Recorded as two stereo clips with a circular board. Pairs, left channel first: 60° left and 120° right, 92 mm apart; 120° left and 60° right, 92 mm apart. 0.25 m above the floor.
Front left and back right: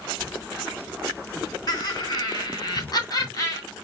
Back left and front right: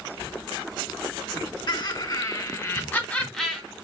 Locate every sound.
1.7 s laughter: 100° left, 3 m; by 3.6 s 25° left, 1.9 m